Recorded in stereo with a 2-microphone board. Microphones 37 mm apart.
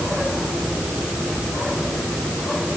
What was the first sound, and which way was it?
Only background noise.